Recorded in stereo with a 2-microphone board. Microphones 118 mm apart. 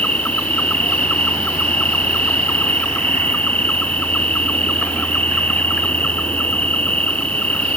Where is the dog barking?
No dog barking in this recording.